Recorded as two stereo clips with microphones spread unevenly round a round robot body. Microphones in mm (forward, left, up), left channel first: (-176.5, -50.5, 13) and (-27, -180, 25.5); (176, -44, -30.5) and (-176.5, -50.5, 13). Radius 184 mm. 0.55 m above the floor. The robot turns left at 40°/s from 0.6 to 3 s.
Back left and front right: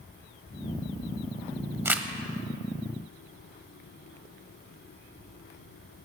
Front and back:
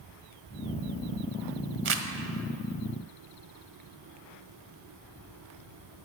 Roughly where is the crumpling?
Behind right.